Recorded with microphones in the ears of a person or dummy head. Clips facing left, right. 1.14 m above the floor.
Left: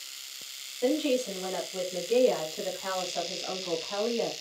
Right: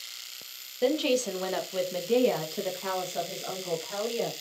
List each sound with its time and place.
0.8 s a woman speaking: 65° right (ahead or behind), 0.8 m; by 4.3 s 20° right (ahead or behind), 1.6 m